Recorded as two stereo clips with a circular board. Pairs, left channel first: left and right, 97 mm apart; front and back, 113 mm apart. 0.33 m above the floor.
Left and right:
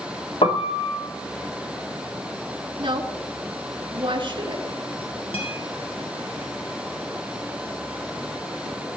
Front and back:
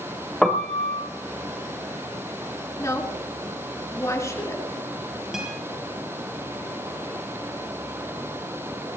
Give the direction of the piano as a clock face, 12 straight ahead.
9 o'clock.